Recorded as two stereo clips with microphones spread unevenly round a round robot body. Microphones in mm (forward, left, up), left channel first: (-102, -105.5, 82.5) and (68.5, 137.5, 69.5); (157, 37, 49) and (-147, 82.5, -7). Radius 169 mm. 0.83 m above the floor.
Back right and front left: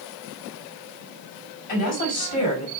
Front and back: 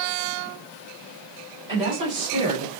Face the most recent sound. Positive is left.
turn(degrees=-125)